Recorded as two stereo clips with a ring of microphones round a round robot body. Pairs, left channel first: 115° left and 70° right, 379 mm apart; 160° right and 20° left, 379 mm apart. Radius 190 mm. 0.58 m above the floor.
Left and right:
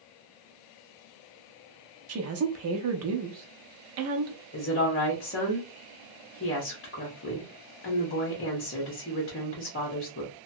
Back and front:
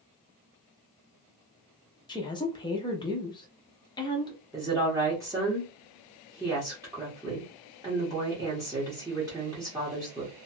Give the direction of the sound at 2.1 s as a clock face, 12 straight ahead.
3 o'clock.